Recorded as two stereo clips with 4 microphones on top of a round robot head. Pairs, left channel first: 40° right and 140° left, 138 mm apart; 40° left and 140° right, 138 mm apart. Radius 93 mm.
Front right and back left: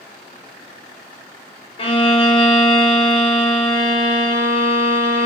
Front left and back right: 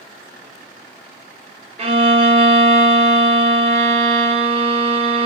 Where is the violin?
90° right, 0.7 m.